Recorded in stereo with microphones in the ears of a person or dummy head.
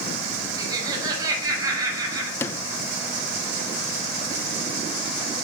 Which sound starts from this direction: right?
Laughter, at 0.6 s.